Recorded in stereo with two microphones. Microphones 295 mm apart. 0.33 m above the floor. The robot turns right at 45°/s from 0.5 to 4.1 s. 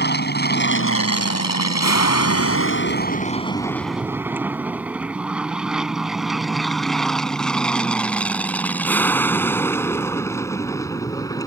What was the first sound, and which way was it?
An aircraft, 35° left (ahead or behind).